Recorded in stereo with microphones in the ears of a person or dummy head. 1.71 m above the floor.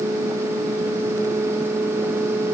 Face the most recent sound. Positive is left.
No sound to turn to.